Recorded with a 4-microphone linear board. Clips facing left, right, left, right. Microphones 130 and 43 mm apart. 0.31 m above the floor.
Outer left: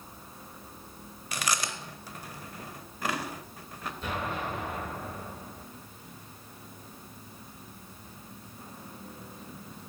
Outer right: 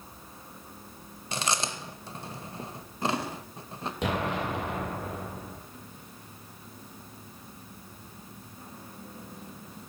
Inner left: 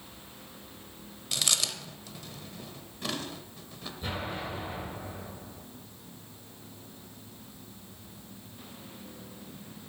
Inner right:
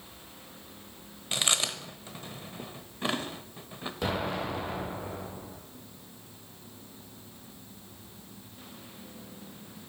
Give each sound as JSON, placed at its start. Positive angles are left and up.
{"t": 1.3, "sound": "chewing", "side_deg": -25, "distance_m": 0.8}
{"t": 4.0, "sound": "an explosion", "side_deg": -80, "distance_m": 2.0}